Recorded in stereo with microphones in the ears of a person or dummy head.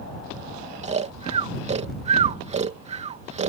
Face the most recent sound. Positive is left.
turn(degrees=-30)  # may be behind; listen again after turning